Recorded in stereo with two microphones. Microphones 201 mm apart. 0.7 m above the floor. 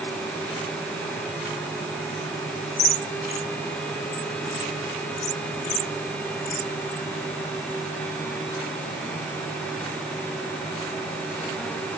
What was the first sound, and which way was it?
Only background noise.